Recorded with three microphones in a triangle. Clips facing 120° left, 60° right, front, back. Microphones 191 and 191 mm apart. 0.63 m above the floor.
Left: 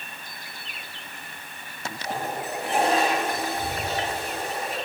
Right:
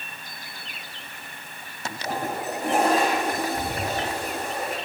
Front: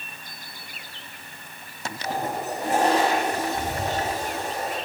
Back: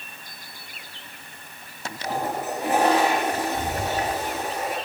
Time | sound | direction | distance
2.0 | a toilet flushing | 105° right | 3 m